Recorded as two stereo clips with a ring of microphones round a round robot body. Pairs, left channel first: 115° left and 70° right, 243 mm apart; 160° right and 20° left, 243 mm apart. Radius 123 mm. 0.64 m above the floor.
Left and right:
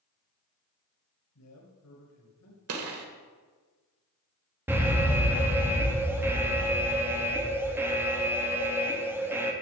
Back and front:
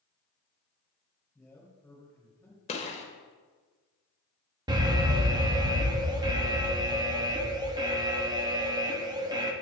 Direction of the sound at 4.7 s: 5° right.